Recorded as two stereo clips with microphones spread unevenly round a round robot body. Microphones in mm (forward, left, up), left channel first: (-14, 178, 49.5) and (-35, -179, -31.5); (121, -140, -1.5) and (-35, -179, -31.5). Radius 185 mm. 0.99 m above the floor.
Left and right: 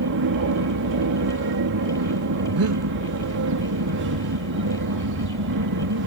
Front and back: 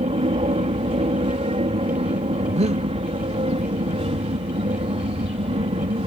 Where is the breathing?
135° right.